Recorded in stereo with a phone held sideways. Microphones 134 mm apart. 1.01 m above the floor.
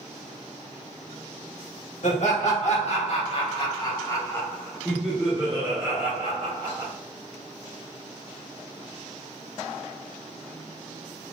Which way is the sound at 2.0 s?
60° left (ahead or behind).